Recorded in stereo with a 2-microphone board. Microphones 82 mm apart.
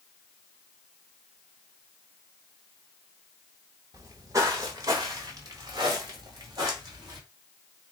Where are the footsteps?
40° right (ahead or behind), 1.1 m; by 7.2 s 50° right (ahead or behind), 3 m.